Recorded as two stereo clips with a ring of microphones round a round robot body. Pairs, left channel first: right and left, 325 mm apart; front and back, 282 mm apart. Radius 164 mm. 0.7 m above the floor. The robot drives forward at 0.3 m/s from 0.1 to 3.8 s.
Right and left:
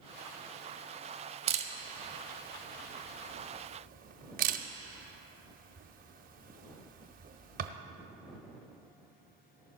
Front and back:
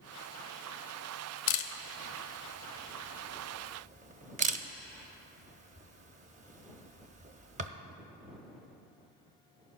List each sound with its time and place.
1.5 s a camera shutter: 20° left, 0.7 m; by 7.7 s 135° left, 0.5 m